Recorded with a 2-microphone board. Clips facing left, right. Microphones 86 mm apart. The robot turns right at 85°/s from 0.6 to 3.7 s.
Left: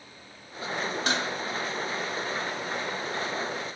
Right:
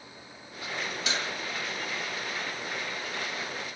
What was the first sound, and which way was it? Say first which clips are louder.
Dishes clattering: left 4 dB; 50° left (ahead or behind).